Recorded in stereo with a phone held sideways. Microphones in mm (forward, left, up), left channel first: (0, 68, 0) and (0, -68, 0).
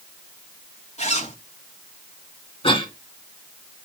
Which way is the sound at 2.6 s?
40° left (ahead or behind).